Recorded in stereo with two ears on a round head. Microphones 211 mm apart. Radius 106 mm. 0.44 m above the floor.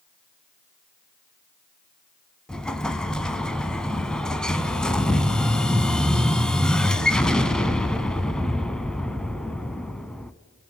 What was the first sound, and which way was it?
An explosion, 5° left (ahead or behind).